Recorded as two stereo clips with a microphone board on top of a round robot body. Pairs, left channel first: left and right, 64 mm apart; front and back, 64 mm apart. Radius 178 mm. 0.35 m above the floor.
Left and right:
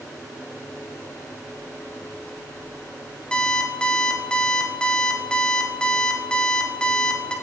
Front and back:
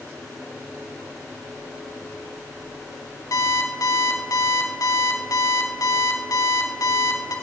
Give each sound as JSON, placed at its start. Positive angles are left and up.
{"t": 3.3, "sound": "an alarm clock", "azimuth_deg": 15, "distance_m": 1.6}